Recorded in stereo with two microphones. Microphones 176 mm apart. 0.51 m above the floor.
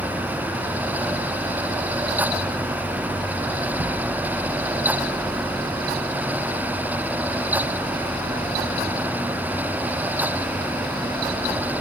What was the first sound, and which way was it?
Only background noise.